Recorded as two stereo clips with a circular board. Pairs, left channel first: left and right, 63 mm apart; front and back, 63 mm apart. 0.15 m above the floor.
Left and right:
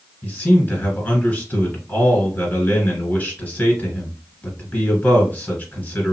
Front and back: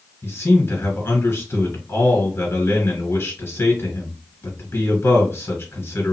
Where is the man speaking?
30° left, 2 m.